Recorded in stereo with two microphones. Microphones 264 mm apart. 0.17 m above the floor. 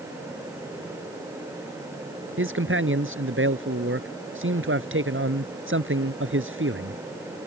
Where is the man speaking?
50° right (ahead or behind).